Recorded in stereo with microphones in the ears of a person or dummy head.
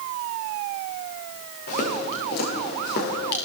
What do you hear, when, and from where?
1.7 s footsteps: 50° left (ahead or behind), 7 m; by 3.4 s 60° left (ahead or behind), 6.5 m